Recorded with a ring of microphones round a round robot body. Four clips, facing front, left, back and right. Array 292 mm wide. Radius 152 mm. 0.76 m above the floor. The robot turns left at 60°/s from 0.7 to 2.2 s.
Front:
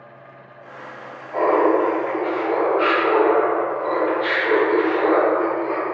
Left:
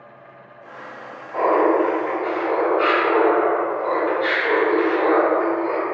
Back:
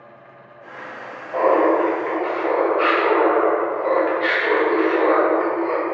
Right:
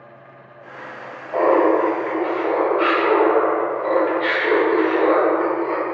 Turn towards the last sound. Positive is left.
turn(degrees=-150)